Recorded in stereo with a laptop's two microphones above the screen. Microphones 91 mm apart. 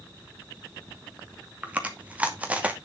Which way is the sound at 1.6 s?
15° right (ahead or behind).